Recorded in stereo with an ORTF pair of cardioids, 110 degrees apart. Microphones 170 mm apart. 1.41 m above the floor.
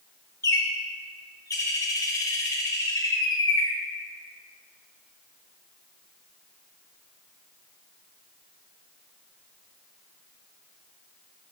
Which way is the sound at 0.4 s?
20° left.